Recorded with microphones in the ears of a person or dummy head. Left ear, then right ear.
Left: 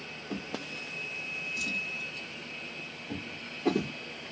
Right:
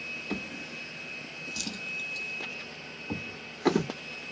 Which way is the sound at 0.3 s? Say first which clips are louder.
Right 1 dB; 50° right (ahead or behind).